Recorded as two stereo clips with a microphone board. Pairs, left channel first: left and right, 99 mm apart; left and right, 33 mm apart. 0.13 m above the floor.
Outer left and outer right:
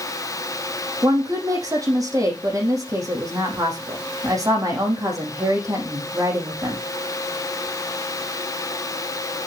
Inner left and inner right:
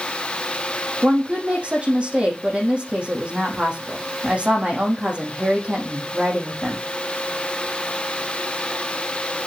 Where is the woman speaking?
35° right (ahead or behind), 5.5 m.